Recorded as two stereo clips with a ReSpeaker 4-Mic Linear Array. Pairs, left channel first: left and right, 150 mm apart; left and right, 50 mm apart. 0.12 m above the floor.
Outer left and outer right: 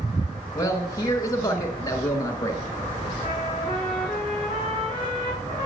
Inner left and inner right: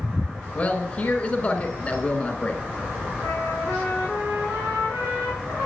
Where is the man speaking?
25° left (ahead or behind), 1.1 m.